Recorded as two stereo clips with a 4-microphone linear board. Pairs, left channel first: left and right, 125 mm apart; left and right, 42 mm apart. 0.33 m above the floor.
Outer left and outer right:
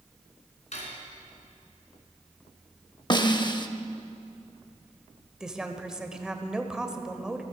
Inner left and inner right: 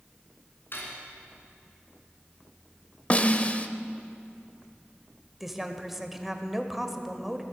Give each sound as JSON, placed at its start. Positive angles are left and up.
{"t": 0.7, "sound": "cutlery clinking", "side_deg": 60, "distance_m": 2.5}
{"t": 3.1, "sound": "a snare drum", "side_deg": 35, "distance_m": 0.6}
{"t": 5.4, "sound": "a woman speaking", "side_deg": -5, "distance_m": 1.0}